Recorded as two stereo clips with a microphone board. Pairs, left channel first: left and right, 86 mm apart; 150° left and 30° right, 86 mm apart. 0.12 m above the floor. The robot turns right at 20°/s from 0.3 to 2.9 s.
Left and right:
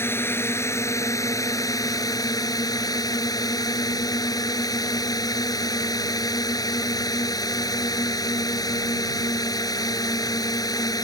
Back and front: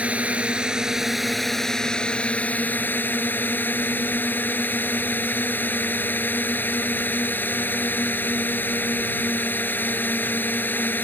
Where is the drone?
40° left; by 11.0 s 90° left.